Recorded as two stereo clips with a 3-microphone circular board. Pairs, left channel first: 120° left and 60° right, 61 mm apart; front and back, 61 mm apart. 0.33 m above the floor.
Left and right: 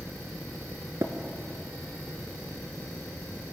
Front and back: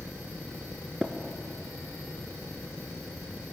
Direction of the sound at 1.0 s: 100° right.